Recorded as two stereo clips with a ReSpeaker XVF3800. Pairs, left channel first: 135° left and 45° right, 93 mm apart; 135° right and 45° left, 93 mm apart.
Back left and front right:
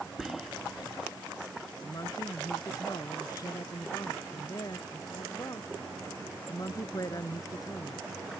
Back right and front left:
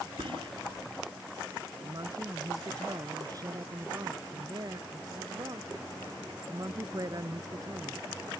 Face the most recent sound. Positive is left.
turn(degrees=90)